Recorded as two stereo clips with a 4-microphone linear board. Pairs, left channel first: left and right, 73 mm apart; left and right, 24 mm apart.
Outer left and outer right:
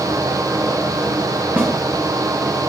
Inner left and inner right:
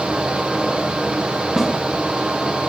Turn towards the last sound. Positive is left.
turn(degrees=-20)  # may be behind; listen again after turning